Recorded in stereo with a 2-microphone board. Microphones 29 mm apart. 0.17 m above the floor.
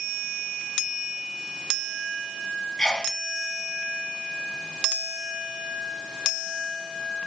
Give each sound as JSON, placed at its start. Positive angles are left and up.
{"t": 2.8, "sound": "a sneeze", "side_deg": 30, "distance_m": 1.6}